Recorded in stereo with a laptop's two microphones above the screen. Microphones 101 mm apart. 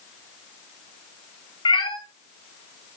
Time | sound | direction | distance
1.6 | a cat meowing | 55° left (ahead or behind) | 2 m